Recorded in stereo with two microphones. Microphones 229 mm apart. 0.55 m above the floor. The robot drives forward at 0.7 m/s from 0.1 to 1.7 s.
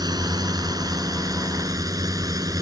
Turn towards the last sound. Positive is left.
turn(degrees=-15)  # may be behind; listen again after turning